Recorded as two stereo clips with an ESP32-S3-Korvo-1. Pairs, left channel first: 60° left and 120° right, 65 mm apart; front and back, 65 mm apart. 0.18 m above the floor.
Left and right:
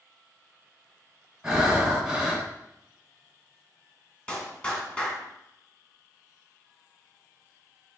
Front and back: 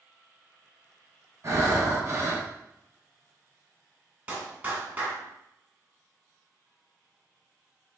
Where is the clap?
125° left, 1.1 m.